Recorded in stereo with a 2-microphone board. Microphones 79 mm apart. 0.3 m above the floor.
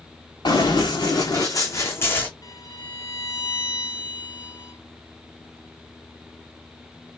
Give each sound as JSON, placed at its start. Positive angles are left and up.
{"t": 0.5, "sound": "running footsteps", "side_deg": 70, "distance_m": 1.9}
{"t": 2.4, "sound": "a violin", "side_deg": 55, "distance_m": 1.4}